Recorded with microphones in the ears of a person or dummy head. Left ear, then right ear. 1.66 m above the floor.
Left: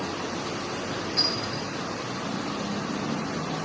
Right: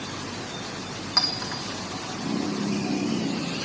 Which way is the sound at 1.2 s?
40° right (ahead or behind).